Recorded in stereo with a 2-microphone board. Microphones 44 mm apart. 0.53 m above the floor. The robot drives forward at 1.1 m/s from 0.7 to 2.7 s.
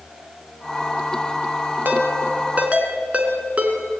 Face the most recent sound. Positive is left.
turn(degrees=-30)  # may be behind; listen again after turning